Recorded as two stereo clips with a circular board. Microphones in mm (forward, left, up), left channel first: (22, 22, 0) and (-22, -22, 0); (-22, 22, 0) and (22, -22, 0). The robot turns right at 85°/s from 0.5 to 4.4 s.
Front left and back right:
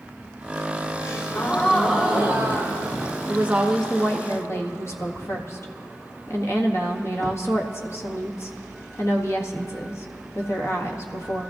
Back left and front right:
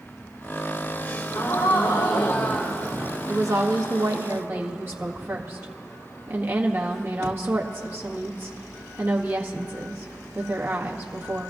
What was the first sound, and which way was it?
A gasp, 70° left.